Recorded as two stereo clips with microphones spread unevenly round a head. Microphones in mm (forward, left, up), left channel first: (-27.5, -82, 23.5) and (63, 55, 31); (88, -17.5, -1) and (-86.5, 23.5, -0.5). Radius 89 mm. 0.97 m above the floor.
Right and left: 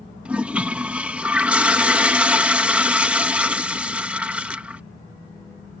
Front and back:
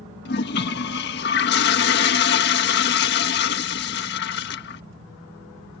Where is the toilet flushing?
25° right.